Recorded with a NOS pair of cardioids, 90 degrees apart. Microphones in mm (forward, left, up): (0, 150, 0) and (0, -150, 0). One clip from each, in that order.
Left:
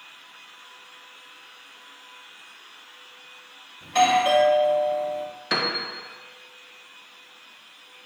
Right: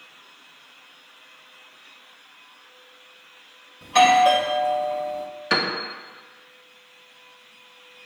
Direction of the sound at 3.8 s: 20° right.